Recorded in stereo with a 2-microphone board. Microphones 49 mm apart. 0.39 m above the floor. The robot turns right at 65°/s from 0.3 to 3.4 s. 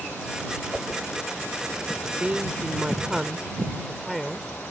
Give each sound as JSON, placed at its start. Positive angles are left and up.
{"t": 0.7, "sound": "a whoosh", "side_deg": -25}
{"t": 2.2, "sound": "a woman speaking", "side_deg": -30}